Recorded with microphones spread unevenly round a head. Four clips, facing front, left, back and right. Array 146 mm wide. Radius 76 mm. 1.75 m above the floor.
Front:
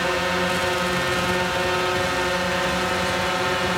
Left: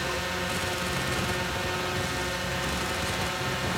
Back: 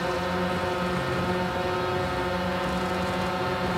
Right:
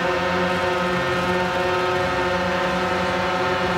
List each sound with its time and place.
0.0 s a drone: 70° right